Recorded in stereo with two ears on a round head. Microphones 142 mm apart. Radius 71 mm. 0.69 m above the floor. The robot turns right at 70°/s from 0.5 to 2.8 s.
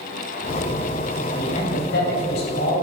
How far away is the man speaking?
About 3.5 m.